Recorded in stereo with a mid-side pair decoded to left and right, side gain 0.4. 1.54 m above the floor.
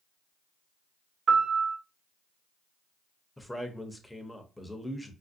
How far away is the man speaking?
About 0.7 m.